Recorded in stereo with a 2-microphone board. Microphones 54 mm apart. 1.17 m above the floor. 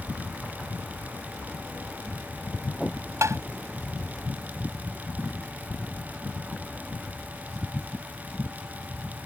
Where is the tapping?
65° right (ahead or behind).